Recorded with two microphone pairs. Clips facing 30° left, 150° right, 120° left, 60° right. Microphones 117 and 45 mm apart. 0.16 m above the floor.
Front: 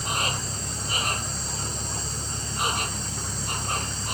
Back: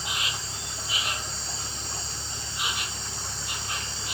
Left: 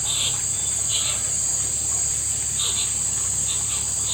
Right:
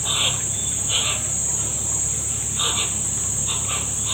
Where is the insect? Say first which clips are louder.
Front 5 dB, right 5 dB; 15° right.